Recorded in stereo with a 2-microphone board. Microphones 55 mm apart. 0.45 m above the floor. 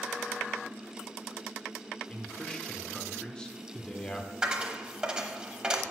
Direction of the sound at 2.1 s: 20° left (ahead or behind).